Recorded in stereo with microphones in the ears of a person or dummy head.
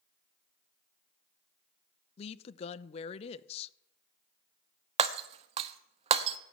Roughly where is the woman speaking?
Left.